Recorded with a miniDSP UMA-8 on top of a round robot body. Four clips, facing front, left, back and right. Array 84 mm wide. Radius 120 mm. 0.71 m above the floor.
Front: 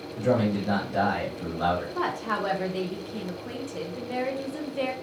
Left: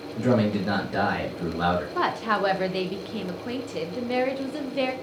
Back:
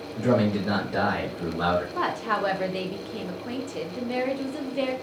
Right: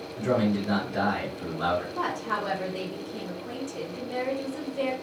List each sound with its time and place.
0.2 s a man speaking: 125° left, 1.3 m
1.9 s a woman speaking: 105° left, 0.8 m